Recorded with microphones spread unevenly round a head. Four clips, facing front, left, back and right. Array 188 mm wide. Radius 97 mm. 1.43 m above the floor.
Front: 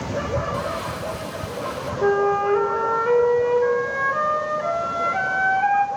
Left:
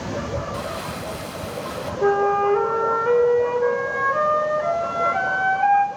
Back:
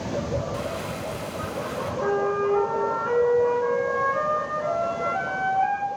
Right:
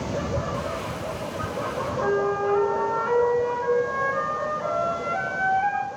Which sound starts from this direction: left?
Crumpling, at 0.5 s.